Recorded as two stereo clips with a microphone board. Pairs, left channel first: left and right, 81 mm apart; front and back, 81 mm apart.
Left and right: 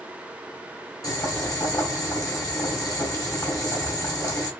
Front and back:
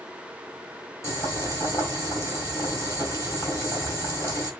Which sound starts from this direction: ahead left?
Boiling, at 1.0 s.